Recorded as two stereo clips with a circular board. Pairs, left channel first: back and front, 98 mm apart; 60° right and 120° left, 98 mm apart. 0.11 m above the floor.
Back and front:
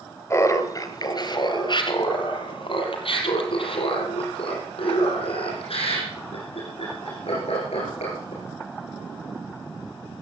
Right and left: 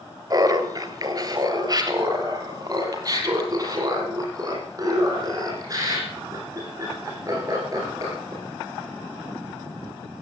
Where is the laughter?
140° left, 1.5 m; by 8.4 s 175° left, 6.5 m.